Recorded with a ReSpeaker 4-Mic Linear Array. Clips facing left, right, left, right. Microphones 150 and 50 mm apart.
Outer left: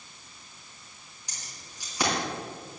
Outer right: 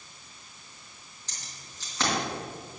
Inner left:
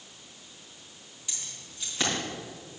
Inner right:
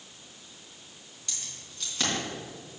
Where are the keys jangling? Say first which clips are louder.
Outer left 1 dB, even; 10° left (ahead or behind), 3.5 m.